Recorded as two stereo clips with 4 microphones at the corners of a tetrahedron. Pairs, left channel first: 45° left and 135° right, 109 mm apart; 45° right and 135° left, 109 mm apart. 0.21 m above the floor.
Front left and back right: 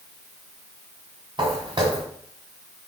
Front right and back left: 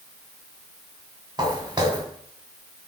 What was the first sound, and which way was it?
Footsteps, 175° right.